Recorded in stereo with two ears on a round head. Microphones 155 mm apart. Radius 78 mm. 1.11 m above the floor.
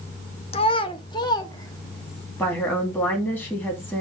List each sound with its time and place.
0.5 s a child speaking: 35° left (ahead or behind), 0.7 m; by 2.3 s 20° left (ahead or behind), 1.6 m
2.4 s a woman speaking: 10° left (ahead or behind), 2.5 m